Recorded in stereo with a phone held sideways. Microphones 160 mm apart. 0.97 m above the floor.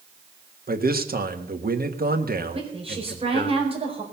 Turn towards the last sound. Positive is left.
turn(degrees=-35)  # may be behind; listen again after turning